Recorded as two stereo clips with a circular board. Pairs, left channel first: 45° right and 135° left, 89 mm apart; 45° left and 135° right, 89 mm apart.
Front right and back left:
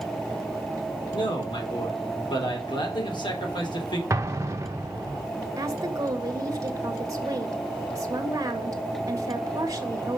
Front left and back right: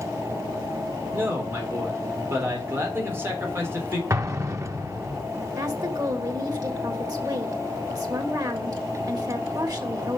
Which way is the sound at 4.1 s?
Straight behind.